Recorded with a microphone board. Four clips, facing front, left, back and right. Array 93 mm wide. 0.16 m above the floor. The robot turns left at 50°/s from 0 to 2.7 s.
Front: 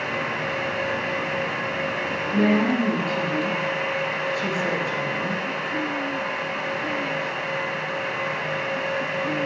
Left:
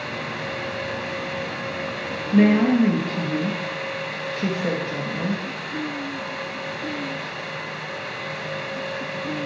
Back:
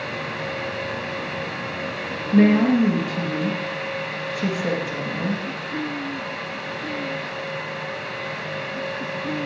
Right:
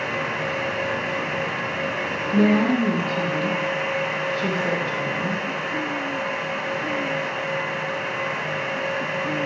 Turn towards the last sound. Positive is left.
turn(degrees=115)